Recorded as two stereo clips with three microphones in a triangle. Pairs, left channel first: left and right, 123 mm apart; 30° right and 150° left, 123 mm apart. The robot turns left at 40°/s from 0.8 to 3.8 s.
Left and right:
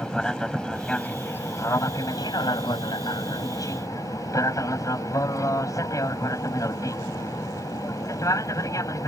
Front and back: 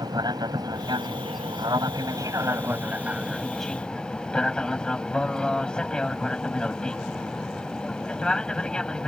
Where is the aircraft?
170° left; by 9.1 s 50° left.